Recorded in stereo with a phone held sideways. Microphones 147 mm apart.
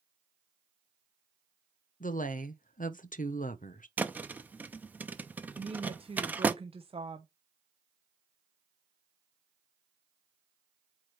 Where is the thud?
10° right (ahead or behind), 0.6 m.